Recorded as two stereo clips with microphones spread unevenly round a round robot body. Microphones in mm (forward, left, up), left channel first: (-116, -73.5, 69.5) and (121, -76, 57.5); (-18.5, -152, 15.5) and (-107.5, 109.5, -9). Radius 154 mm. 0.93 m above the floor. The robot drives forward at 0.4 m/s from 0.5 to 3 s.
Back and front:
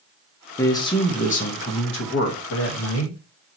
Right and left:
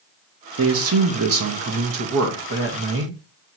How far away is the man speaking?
About 0.8 m.